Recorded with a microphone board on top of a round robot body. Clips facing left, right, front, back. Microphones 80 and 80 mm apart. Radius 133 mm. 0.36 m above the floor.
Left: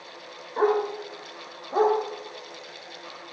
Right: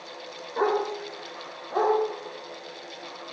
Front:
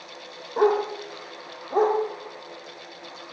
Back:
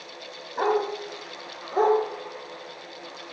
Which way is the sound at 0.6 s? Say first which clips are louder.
Left 2 dB, front 3 dB; straight ahead.